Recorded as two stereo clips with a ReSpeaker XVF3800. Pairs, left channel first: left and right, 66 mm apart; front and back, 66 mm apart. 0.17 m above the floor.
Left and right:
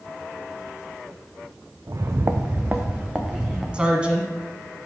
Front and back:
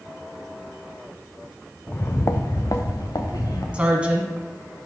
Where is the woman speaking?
135° right, 1.0 m.